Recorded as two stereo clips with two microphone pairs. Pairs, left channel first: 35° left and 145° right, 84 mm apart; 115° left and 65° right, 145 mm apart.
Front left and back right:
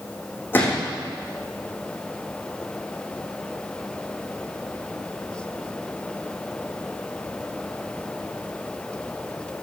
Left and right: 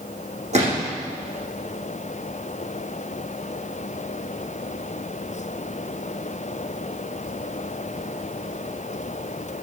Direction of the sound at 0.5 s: 30° right.